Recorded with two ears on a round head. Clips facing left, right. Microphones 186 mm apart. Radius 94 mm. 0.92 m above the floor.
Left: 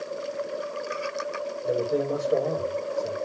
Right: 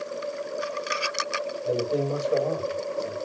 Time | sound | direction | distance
1.6 | a man speaking | 5° left (ahead or behind) | 4 m